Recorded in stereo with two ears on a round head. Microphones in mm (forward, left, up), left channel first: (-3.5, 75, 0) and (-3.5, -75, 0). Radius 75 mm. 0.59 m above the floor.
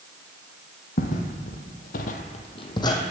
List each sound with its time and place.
1.0 s footsteps: 45° left (ahead or behind), 1.5 m; by 3.0 s 20° left (ahead or behind), 1.4 m